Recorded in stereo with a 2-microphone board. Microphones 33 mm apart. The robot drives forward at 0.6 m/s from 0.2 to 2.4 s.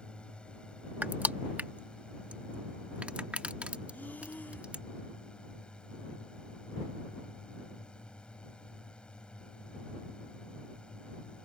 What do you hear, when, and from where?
0.0 s a drone: 30° left (ahead or behind); by 11.5 s 25° left (ahead or behind)
1.0 s crushing: 60° right (ahead or behind); by 4.8 s 45° right (ahead or behind)
3.9 s breathing: 65° left (ahead or behind)